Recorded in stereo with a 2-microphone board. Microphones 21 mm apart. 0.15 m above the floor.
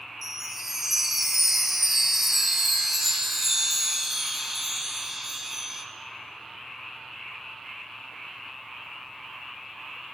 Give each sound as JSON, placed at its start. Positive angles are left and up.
{"t": 0.2, "sound": "a chime", "side_deg": -15, "distance_m": 0.7}